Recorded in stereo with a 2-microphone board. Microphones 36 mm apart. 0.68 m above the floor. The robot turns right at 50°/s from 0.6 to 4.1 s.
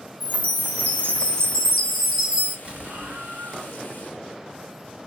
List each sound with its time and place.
0.2 s a chime: 110° left, 2 m; by 2.5 s 150° right, 2 m
2.6 s an explosion: 150° right, 0.8 m; by 3.8 s 90° right, 0.8 m